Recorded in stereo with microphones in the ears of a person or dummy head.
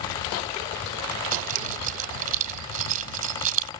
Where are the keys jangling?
50° right (ahead or behind).